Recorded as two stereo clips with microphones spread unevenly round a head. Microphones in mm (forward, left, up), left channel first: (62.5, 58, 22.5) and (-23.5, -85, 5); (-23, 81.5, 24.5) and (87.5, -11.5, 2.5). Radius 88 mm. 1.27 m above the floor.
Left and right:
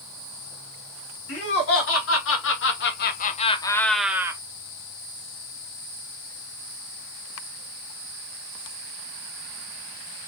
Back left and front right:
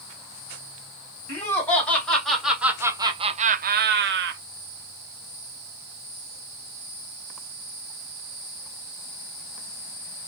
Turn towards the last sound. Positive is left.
turn(degrees=-50)